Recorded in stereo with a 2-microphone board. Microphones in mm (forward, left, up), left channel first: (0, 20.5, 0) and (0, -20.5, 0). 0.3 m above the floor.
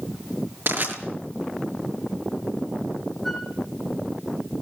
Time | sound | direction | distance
0.7 | crushing | 50° right (ahead or behind) | 6.5 m
3.2 | a flute | centre (ahead or behind) | 5.5 m